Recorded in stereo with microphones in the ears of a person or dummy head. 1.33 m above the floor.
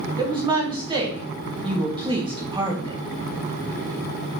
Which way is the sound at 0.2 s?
25° right (ahead or behind).